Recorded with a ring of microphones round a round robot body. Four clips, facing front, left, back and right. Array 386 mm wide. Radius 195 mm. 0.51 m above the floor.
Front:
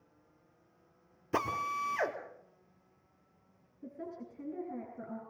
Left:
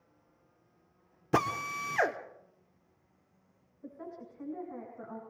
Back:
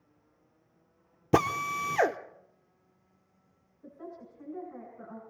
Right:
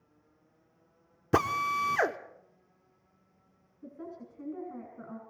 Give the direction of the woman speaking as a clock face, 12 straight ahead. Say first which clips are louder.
Right 1 dB, front 1 dB; 1 o'clock.